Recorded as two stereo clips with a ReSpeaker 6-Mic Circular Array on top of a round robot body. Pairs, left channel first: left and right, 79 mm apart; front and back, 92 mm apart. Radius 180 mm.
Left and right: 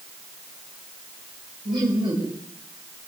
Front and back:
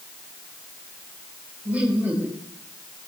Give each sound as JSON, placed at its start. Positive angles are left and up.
{"t": 1.6, "sound": "laughter", "azimuth_deg": -105, "distance_m": 3.5}